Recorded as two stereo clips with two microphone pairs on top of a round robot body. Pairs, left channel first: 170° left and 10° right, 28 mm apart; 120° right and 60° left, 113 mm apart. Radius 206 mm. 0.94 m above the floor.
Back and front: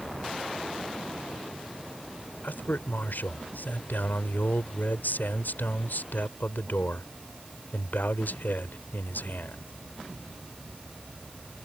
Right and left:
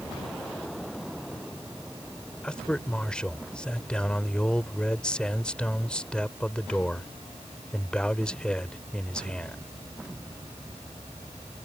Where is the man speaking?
155° left.